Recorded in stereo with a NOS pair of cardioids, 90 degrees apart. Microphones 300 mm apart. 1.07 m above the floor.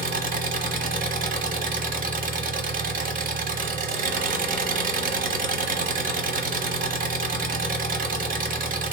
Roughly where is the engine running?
Ahead right.